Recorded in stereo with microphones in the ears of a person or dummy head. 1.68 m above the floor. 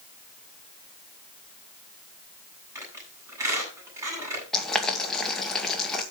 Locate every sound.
2.8 s a squeak: 15° right (ahead or behind), 7 m
4.5 s boiling: 5° left (ahead or behind), 2 m